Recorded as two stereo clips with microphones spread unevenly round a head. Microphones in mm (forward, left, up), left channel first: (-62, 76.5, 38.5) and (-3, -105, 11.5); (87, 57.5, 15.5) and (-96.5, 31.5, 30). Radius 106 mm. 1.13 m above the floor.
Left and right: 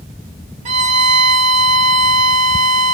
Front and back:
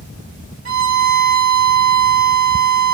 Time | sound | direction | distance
0.7 | a violin | 130° right | 0.8 m